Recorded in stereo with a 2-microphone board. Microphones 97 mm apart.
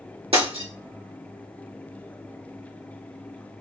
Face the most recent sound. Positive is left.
turn(degrees=-70)  # may be behind; listen again after turning